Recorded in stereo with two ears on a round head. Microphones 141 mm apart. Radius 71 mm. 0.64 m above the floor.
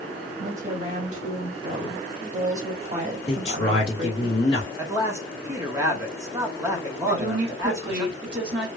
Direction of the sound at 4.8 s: 20° right (ahead or behind).